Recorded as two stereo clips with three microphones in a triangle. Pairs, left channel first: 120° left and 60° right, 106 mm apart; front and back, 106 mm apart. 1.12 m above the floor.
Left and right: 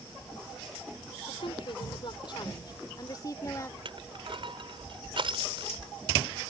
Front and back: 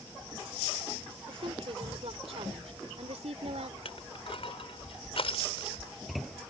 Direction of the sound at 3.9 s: 25° right.